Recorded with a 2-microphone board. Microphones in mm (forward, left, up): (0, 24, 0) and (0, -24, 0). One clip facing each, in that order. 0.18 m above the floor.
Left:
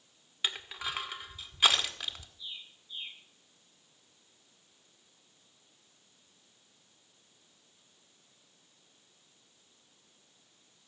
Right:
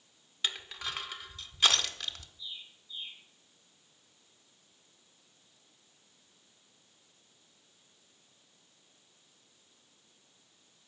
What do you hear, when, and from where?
0.4 s crushing: 15° left (ahead or behind), 1.7 m
2.4 s a bird: 85° left, 9.5 m